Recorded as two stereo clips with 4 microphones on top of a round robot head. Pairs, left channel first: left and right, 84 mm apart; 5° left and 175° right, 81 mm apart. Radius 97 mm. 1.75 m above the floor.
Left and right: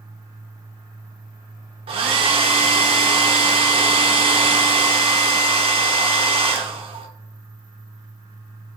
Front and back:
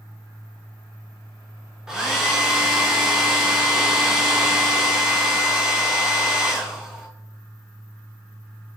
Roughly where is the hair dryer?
Right.